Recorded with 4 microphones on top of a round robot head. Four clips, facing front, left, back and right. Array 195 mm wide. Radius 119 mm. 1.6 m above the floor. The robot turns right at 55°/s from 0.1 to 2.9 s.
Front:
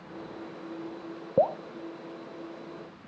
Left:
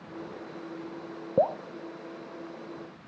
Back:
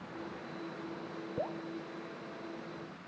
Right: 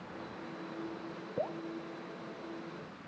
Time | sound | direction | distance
1.4 | dripping | 40° left | ?